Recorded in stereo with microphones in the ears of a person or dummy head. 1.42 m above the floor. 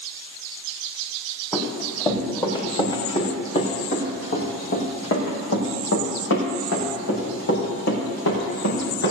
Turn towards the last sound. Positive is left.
turn(degrees=70)  # may be behind; listen again after turning